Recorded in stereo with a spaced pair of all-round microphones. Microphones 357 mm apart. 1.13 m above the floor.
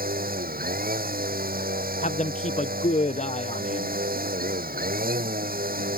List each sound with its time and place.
0.0 s a machine running: 25° right (ahead or behind)
2.0 s a man speaking: 20° left (ahead or behind)